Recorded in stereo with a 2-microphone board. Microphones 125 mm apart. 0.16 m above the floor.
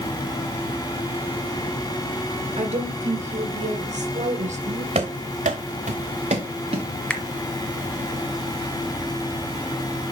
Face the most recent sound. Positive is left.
turn(degrees=10)  # may be behind; listen again after turning